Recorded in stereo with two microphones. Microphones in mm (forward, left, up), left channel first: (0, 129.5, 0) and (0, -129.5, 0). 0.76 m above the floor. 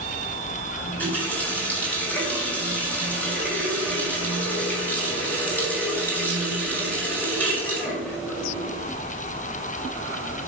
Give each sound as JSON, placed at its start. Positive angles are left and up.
{"t": 0.8, "sound": "a running tap", "side_deg": 5, "distance_m": 3.5}